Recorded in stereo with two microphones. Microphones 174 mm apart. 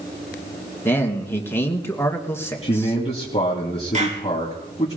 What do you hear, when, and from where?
0.8 s a man speaking: 15° left (ahead or behind), 2.5 m
2.6 s a man speaking: 30° left (ahead or behind), 2.5 m
3.9 s a clap: 40° right (ahead or behind), 2.5 m